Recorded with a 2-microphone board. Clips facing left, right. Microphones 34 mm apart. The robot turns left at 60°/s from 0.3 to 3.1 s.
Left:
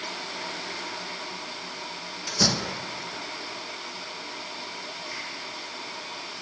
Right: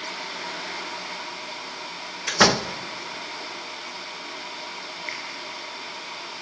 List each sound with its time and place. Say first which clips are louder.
2.3 s a door slam: right 7 dB; 80° right, 0.7 m; by 2.8 s 65° right (ahead or behind), 0.7 m
5.1 s a finger snap: right 4 dB; 70° right (ahead or behind), 6.5 m